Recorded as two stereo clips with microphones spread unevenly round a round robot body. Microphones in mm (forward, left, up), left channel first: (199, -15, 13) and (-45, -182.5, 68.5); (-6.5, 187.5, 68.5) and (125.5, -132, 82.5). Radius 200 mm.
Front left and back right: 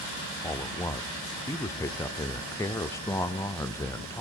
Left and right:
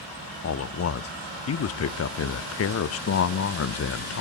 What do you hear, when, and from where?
0.4 s a man speaking: 100° left, 0.8 m